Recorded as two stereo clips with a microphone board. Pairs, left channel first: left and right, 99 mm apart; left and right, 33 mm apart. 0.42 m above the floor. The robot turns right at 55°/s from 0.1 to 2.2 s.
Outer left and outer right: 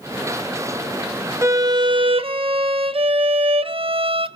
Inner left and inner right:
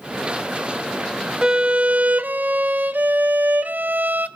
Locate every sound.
1.4 s a violin: 150° right, 0.6 m; by 4.3 s 105° right, 0.6 m